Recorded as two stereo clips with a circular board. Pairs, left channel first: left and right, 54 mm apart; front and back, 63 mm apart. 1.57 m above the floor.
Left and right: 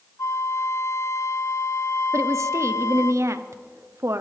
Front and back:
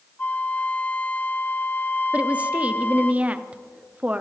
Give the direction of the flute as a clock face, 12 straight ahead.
10 o'clock.